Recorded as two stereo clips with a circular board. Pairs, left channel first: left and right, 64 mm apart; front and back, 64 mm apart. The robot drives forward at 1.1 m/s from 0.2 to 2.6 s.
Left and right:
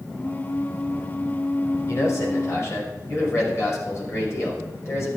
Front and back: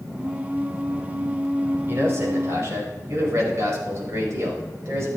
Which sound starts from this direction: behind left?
A man speaking, at 1.9 s.